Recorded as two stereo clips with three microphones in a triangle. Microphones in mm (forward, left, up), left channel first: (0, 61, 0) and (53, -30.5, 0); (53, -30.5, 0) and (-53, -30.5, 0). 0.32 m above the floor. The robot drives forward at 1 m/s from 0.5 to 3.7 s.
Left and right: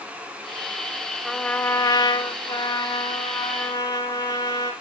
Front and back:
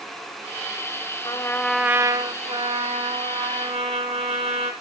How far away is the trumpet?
About 0.7 m.